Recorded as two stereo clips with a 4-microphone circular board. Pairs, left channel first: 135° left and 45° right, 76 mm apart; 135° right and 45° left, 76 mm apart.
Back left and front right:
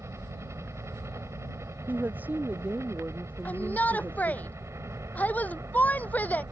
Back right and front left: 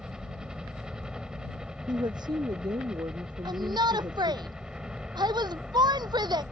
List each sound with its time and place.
0.0 s a helicopter: 30° right
1.9 s a woman speaking: 25° left
3.5 s a shout: 65° left